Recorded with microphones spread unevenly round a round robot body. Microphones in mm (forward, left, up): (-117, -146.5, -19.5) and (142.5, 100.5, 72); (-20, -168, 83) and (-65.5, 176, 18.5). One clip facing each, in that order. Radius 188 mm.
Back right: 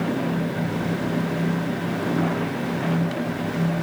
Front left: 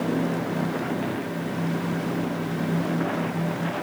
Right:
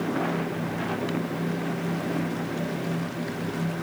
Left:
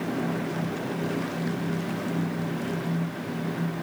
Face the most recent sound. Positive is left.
No sound to turn to.